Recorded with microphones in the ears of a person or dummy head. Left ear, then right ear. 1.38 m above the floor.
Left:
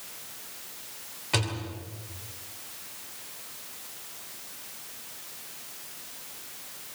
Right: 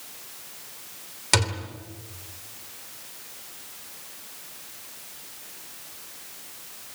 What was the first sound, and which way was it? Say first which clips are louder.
A thud: right 6 dB; 75° right (ahead or behind).